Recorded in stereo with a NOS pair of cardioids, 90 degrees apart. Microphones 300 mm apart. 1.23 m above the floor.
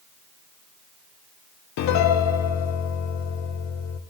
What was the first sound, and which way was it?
A piano, 60° left.